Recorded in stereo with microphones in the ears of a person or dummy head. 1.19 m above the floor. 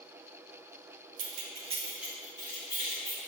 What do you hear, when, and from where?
1.2 s keys jangling: 75° right (ahead or behind), 0.7 m; by 3.2 s 20° left (ahead or behind), 2 m